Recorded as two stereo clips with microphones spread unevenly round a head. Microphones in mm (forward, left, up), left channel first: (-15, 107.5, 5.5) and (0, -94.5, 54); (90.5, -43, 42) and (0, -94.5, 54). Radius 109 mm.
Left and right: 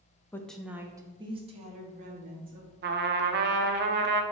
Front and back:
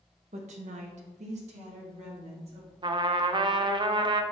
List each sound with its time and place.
0.3 s a woman speaking: 175° left, 0.9 m; by 2.7 s 135° right, 2 m
2.8 s a trumpet: 120° right, 0.8 m